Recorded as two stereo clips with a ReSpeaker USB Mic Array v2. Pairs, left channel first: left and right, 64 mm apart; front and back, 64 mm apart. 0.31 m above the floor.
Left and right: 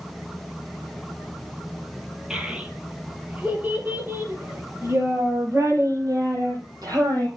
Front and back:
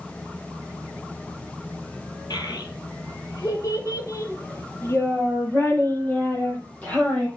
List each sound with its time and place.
2.3 s a child speaking: 10° right, 5 m; by 7.3 s 70° right, 6.5 m